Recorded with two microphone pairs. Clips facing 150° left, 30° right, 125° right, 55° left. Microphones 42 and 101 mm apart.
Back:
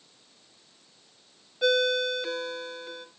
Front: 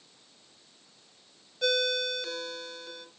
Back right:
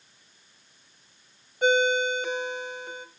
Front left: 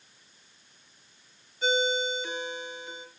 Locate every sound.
1.6 s a ringtone: 140° right, 1.0 m